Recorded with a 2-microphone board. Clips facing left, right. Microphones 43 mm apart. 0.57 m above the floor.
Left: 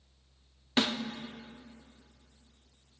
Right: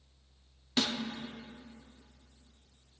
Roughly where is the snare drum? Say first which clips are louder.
Left 3 dB; left.